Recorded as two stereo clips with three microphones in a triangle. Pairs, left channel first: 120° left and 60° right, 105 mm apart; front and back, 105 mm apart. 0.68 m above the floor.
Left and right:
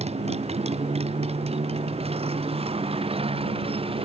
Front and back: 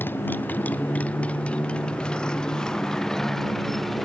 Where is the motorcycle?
70° right; by 4.1 s 90° right.